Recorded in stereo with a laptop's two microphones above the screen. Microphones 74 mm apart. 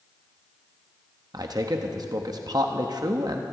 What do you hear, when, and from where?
1.3 s a man speaking: 60° right (ahead or behind), 0.9 m